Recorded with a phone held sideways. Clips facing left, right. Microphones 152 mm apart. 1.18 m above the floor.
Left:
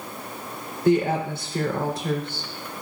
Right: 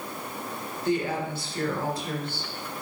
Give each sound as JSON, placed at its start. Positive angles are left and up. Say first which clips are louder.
{"t": 0.8, "sound": "a woman speaking", "louder": "left 7 dB", "side_deg": 70, "distance_m": 3.0}